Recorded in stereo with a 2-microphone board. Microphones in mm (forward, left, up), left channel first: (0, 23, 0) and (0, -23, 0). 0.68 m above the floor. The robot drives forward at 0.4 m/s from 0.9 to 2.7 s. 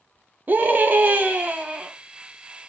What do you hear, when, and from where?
0.5 s a scream: 40° right (ahead or behind), 0.8 m; by 1.9 s 30° right (ahead or behind), 1.0 m